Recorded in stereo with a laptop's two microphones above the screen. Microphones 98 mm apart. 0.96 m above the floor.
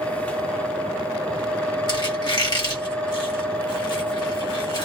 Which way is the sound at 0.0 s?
15° left (ahead or behind).